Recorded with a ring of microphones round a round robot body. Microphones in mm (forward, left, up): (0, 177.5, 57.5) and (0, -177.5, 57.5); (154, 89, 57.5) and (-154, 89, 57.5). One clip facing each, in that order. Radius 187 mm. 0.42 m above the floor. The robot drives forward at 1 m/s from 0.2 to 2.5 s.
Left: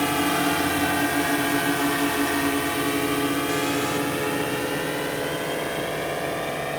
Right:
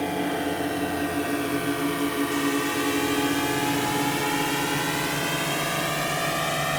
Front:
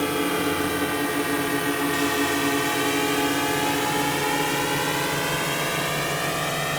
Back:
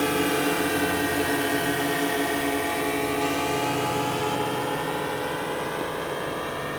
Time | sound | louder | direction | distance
0.0 | a drone | left 3 dB, even | 85° left | ?